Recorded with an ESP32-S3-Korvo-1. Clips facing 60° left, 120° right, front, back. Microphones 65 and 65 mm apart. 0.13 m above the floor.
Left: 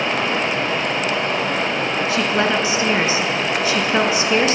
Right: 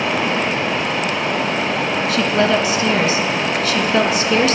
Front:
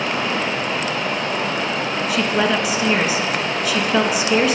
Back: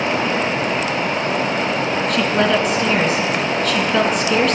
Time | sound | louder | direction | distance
0.0 | running water | right 1 dB, back 3 dB | 155° left | 2.5 m
2.1 | a woman speaking | right 3 dB, back 1 dB | 75° left | 1.1 m